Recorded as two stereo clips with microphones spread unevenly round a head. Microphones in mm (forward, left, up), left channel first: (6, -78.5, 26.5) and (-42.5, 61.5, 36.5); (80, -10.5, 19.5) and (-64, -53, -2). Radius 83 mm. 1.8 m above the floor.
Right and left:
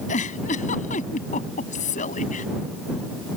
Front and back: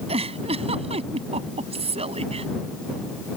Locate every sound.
0.1 s a giggle: 110° right